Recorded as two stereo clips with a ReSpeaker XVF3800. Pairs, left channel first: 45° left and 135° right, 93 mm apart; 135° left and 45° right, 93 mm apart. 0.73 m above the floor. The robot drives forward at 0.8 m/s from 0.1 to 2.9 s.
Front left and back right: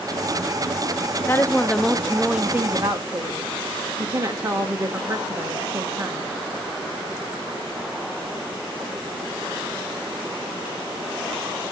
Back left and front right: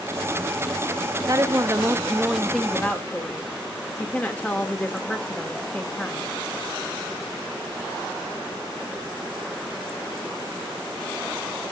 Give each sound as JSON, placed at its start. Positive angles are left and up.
{"t": 1.3, "sound": "a woman speaking", "azimuth_deg": -10, "distance_m": 1.1}